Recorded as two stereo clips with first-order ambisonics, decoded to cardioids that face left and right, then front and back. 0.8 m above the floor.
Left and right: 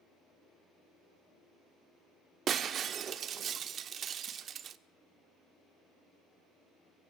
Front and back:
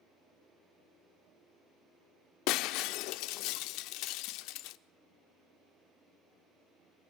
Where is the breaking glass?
30° right, 1.2 m.